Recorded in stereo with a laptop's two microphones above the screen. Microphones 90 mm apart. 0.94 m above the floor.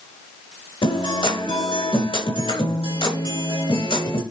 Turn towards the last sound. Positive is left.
turn(degrees=75)  # may be behind; listen again after turning